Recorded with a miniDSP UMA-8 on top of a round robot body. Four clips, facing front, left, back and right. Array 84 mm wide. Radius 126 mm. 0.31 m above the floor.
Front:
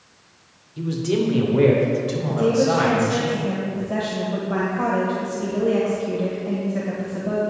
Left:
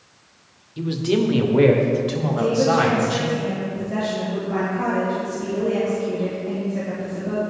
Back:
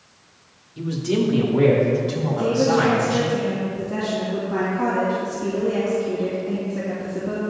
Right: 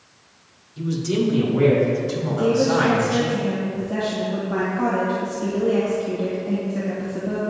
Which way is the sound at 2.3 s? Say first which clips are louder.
Even, front 1 dB; straight ahead.